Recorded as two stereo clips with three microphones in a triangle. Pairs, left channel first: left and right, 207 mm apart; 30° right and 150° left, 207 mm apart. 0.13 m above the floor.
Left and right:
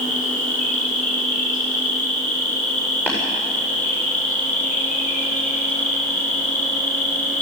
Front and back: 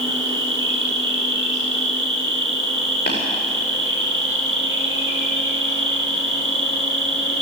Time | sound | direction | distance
0.0 | an insect | 140° left | 5 m
3.1 | tapping | 10° left | 8.5 m